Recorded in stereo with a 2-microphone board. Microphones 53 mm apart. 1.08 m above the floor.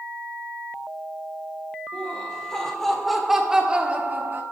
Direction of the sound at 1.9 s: 20° left (ahead or behind).